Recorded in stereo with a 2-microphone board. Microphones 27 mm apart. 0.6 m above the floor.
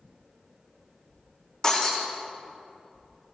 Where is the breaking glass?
25° left (ahead or behind), 5 m.